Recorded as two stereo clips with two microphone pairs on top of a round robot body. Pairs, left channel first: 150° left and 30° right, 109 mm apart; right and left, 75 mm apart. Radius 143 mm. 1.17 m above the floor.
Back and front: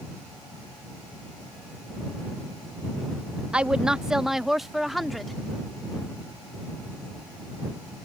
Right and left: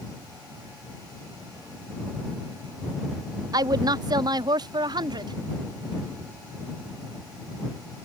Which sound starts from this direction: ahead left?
A woman speaking, at 3.5 s.